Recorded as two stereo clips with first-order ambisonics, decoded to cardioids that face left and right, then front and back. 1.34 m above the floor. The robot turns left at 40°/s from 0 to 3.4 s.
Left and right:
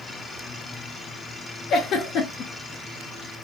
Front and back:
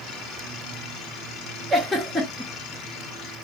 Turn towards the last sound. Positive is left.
turn(degrees=40)